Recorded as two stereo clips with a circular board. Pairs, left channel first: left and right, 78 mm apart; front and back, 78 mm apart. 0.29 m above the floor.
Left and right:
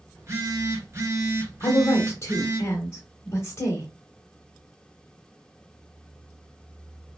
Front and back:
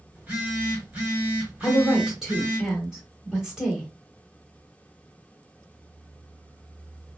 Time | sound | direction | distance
0.1 | a phone buzzing | 115° right | 1.3 m
1.6 | a woman speaking | 100° left | 1.1 m